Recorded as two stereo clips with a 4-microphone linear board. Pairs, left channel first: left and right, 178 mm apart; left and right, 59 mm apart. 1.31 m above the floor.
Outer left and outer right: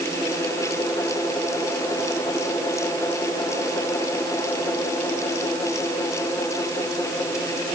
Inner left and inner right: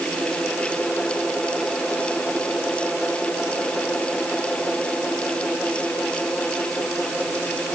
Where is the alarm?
I don't hear an alarm.